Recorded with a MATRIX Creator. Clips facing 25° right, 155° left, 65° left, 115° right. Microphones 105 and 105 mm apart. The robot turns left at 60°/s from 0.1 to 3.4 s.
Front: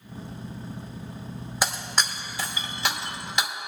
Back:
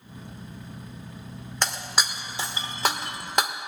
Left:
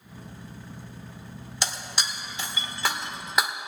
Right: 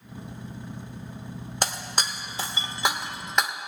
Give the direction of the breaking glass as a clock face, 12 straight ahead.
3 o'clock.